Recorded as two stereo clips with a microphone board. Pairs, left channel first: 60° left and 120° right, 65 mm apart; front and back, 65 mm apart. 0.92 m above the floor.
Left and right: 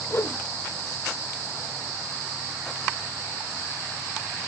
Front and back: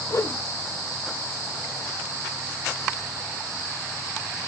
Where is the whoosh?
25° left, 0.7 m.